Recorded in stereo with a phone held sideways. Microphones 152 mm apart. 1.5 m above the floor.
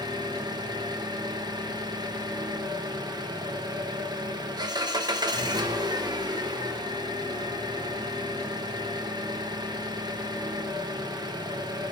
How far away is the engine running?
About 1.0 m.